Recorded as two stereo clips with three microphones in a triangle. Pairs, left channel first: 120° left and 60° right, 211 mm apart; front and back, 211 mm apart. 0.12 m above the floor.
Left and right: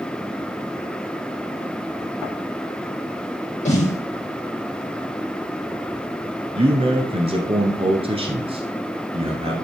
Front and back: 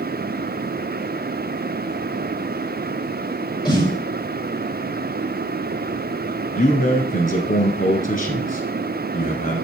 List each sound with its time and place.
3.6 s a snare drum: 65° left, 5 m
6.5 s a man speaking: 15° right, 1.4 m